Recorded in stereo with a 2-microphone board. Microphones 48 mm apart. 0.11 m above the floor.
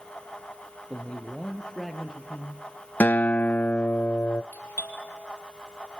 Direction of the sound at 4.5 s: 45° left (ahead or behind).